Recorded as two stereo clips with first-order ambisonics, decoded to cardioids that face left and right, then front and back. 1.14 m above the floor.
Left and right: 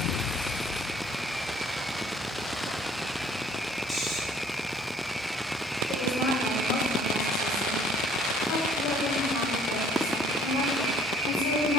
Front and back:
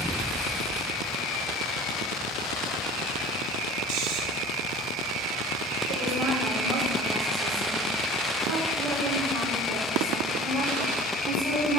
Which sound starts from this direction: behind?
Snoring, at 3.9 s.